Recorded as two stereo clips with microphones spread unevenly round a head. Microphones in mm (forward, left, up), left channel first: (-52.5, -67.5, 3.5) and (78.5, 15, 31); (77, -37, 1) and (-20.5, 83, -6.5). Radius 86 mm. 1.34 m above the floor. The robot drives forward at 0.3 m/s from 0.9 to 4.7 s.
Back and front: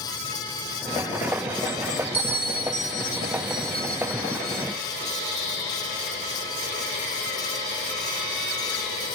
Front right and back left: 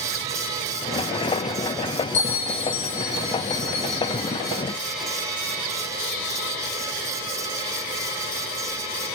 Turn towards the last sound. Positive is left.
turn(degrees=-70)